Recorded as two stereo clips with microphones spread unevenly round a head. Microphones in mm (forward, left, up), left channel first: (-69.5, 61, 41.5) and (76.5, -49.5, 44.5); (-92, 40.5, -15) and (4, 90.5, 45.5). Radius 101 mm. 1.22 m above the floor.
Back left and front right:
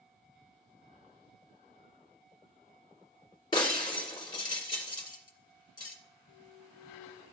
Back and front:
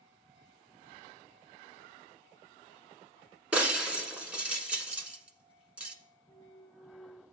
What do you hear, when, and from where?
3.5 s breaking glass: 80° left, 1.2 m
6.3 s a clunk: 85° right, 2 m